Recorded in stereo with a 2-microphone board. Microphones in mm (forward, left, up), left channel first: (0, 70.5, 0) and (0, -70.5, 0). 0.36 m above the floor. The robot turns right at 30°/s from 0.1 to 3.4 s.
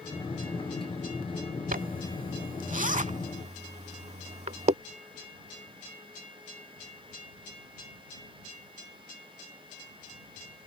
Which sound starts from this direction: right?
A zipper, at 1.7 s.